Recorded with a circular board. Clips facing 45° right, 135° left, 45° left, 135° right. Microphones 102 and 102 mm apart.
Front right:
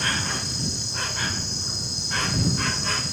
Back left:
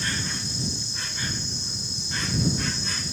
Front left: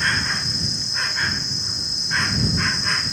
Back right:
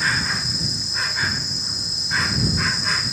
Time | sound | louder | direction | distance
0.0 | an insect | front right 3 dB, even | 50° right | ?